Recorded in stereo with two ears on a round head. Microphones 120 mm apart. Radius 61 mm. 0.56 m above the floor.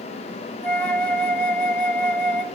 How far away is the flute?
About 0.6 m.